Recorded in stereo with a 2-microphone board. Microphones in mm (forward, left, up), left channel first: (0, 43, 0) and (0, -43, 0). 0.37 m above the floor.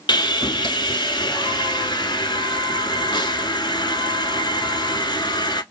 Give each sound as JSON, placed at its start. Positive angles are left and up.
{"t": 0.1, "sound": "sawing", "side_deg": 60, "distance_m": 0.8}